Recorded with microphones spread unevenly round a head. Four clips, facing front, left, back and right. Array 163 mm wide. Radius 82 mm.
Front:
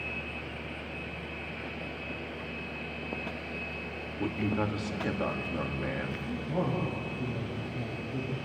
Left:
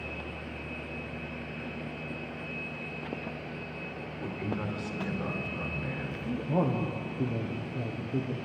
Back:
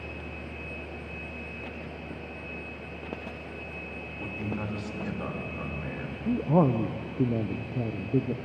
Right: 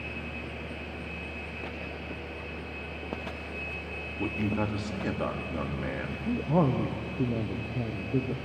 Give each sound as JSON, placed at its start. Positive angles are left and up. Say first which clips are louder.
{"t": 4.2, "sound": "a man speaking", "louder": "right 5 dB, front 5 dB", "azimuth_deg": -50, "distance_m": 3.5}
{"t": 6.2, "sound": "a man speaking", "louder": "right 3 dB, back 10 dB", "azimuth_deg": -165, "distance_m": 1.2}